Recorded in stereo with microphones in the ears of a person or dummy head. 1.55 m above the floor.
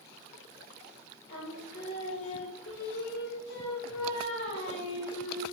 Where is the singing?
60° left (ahead or behind), 1.2 m.